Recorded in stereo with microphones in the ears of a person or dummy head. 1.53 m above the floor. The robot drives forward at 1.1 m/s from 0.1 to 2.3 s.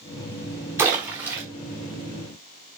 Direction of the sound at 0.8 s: 15° right (ahead or behind).